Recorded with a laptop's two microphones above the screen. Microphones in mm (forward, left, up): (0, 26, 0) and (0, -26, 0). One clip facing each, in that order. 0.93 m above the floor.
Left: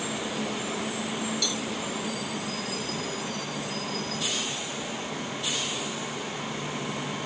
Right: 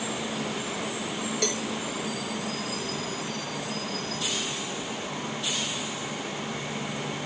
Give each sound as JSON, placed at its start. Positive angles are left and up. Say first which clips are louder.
{"t": 1.4, "sound": "a cowbell", "louder": "right 2 dB", "side_deg": -45}